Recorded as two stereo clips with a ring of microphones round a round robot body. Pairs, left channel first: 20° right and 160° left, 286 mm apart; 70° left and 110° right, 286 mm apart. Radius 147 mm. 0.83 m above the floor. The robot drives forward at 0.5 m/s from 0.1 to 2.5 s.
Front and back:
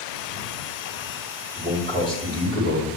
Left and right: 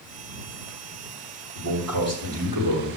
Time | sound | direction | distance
1.6 | a man speaking | 140° right | 4 m